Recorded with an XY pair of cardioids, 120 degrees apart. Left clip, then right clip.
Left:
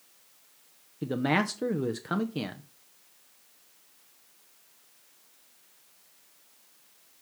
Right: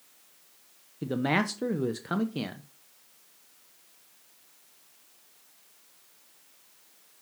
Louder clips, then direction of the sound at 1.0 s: Even; 5° left.